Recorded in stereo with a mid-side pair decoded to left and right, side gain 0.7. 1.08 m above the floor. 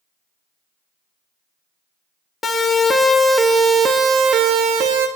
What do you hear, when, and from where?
2.4 s a siren: 20° left, 2.5 m; by 5.1 s 70° right, 2.5 m